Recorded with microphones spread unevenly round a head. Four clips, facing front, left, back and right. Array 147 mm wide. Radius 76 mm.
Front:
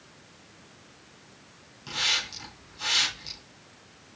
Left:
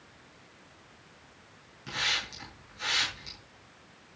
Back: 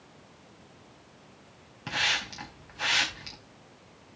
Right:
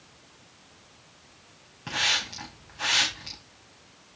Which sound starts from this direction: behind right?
A hiss, at 1.9 s.